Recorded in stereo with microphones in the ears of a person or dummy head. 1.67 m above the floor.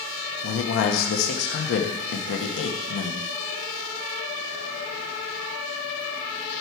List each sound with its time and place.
0.4 s a man speaking: 65° left (ahead or behind), 1.1 m